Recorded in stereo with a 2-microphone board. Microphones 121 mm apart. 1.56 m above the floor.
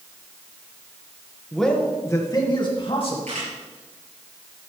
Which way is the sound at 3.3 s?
75° right (ahead or behind).